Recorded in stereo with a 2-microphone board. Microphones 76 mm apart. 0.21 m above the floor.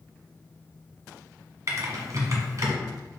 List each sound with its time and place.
1.7 s typing on a keyboard: 50° right (ahead or behind), 1.2 m